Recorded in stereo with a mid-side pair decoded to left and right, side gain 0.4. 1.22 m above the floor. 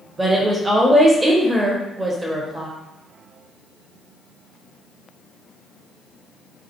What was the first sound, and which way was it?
A woman speaking, 25° right.